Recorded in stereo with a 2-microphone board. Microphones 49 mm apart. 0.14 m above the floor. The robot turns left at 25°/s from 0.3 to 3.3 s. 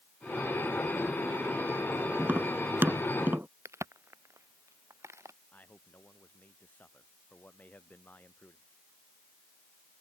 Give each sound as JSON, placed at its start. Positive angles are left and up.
{"t": 2.2, "sound": "tapping", "side_deg": -45}
{"t": 3.6, "sound": "a crack", "side_deg": -75}
{"t": 5.5, "sound": "a man speaking", "side_deg": 35}